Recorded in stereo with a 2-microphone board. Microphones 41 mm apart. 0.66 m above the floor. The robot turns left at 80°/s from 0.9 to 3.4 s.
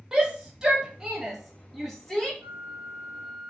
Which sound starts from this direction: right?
A flute, at 2.4 s.